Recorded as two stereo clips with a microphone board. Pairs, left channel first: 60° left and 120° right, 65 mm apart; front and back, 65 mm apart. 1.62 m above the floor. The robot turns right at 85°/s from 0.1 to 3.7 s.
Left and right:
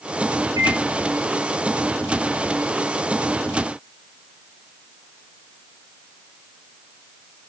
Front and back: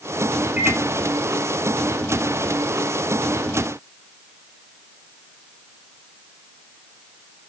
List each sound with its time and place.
0.6 s a microwave: 115° right, 2.5 m; by 0.8 s 95° right, 2.5 m